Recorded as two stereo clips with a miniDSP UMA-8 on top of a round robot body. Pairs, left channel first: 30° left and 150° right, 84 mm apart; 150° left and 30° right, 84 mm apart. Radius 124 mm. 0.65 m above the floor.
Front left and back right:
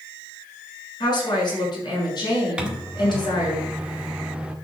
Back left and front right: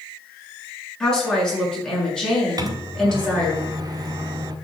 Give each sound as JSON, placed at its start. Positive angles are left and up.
{"t": 1.0, "sound": "a woman speaking", "azimuth_deg": 70, "distance_m": 7.5}
{"t": 2.6, "sound": "a microwave", "azimuth_deg": -70, "distance_m": 1.6}